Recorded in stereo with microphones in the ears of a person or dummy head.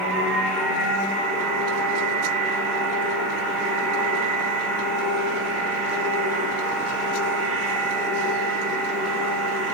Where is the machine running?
Centre (ahead or behind), 6.5 m.